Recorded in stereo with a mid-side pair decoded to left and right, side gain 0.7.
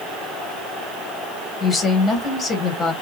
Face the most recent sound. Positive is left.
turn(degrees=15)